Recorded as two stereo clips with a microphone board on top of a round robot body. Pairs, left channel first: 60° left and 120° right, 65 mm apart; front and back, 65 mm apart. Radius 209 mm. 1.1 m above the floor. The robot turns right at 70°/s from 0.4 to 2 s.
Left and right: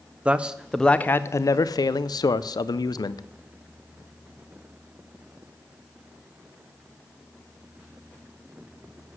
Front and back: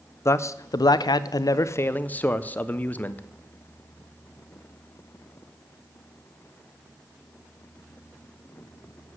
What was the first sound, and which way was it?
A man speaking, 50° right.